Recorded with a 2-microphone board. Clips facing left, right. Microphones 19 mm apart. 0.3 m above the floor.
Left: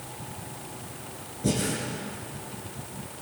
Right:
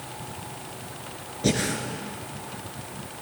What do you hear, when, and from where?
1.4 s breathing: 55° right (ahead or behind), 2.0 m